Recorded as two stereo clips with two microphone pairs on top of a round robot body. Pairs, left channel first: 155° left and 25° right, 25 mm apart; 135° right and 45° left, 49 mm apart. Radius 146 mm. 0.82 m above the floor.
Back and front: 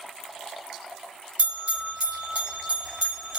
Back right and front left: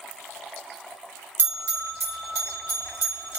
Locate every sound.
1.4 s a bell: straight ahead, 1.3 m